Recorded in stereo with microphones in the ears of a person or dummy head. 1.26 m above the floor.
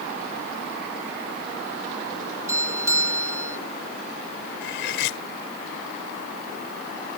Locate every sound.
2.5 s a doorbell: 15° right (ahead or behind)
4.6 s cutlery clinking: 65° left (ahead or behind)